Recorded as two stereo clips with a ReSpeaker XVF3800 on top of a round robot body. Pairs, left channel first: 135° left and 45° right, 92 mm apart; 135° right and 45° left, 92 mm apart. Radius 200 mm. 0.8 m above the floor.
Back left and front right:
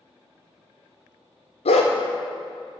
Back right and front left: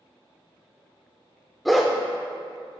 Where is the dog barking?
135° left, 0.9 m.